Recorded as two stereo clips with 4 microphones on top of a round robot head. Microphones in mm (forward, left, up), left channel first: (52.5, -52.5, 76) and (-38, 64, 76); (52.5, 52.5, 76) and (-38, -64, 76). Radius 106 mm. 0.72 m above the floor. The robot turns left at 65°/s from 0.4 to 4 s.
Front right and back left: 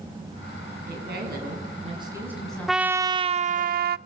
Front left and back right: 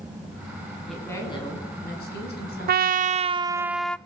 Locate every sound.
0.9 s a woman speaking: 140° left, 8 m; by 3.7 s 40° right, 8 m
2.7 s a trumpet: 145° right, 0.5 m; by 4.0 s 135° left, 0.5 m